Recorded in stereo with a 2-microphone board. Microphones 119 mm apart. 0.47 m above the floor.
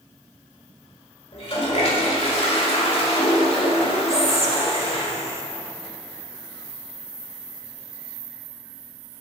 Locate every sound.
1.3 s a toilet flushing: 55° left (ahead or behind), 1.6 m
4.1 s whispering: 25° right (ahead or behind), 1.0 m